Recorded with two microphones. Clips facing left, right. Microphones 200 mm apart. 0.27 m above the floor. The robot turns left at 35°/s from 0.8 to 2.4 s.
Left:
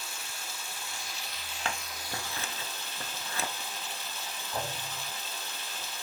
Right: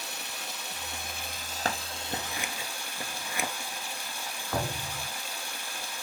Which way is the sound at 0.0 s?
110° right.